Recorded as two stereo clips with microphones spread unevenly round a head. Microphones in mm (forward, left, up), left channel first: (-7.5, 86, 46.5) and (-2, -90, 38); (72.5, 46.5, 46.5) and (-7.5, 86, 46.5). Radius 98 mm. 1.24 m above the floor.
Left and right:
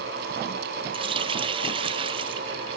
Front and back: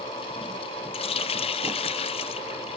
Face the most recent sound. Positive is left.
turn(degrees=-25)